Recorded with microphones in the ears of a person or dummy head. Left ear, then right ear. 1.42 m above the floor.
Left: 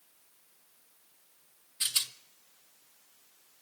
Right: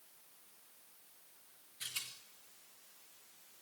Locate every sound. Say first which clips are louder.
1.8 s a rattle: left 12 dB; 45° left (ahead or behind), 0.6 m